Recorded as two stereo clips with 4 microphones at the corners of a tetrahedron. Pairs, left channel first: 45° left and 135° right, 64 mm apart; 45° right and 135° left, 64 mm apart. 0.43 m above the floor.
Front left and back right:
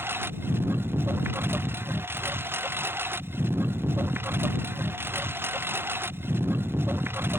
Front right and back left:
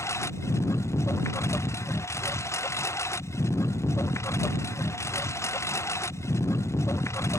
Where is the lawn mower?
85° right.